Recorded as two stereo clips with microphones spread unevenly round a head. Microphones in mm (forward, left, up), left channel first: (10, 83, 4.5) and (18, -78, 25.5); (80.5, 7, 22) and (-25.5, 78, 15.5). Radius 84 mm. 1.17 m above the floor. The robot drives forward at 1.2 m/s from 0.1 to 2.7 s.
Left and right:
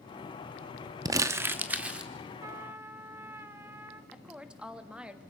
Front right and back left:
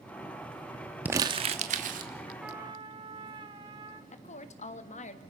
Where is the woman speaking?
5° right, 1.6 m.